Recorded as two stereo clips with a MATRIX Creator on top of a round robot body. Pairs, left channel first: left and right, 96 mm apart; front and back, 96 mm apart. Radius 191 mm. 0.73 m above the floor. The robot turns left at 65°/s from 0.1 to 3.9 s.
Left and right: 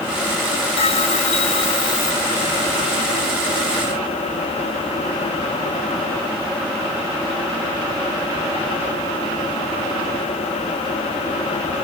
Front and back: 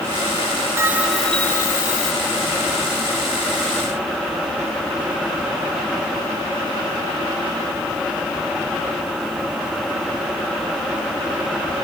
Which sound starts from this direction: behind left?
A bell, at 0.8 s.